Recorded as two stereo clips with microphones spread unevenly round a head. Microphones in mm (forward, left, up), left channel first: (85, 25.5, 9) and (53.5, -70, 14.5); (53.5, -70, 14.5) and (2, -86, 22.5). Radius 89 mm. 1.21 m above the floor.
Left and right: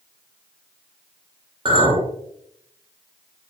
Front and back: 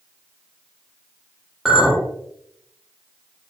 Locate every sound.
1.6 s a clink: 75° right, 2 m